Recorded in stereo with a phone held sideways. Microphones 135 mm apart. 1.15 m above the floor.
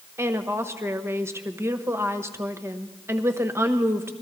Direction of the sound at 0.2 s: 20° right (ahead or behind).